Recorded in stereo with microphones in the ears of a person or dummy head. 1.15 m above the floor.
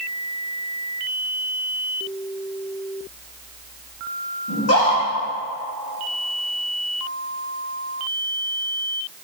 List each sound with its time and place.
4.5 s a scream: 75° left (ahead or behind), 3 m